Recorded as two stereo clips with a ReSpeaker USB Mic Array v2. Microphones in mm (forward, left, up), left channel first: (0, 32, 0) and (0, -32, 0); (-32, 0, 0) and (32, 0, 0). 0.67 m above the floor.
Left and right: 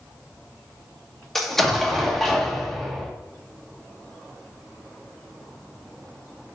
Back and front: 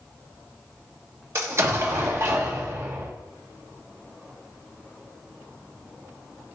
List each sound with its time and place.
1.4 s an explosion: 5° left, 1.1 m